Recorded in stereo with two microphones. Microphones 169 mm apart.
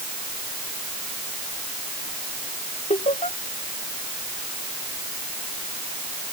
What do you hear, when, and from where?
2.9 s laughter: 40° left (ahead or behind)